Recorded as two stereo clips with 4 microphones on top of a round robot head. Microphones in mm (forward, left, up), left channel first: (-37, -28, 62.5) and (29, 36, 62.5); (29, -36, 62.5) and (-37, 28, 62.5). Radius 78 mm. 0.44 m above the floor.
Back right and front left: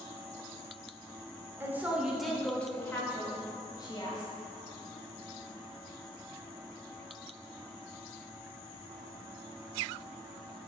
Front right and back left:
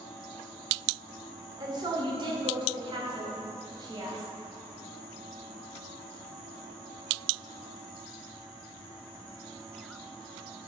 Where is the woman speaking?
105° left, 1.5 m; by 4.3 s straight behind, 2.5 m.